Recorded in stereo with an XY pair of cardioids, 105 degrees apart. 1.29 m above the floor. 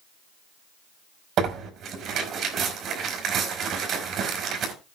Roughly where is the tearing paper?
Ahead right.